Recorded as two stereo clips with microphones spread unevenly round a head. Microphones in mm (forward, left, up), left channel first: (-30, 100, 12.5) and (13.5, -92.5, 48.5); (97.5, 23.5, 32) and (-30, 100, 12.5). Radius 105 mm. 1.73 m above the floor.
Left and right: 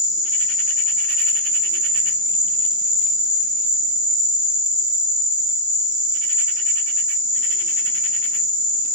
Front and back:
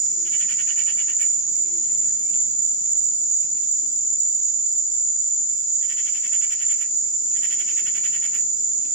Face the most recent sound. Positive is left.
turn(degrees=-55)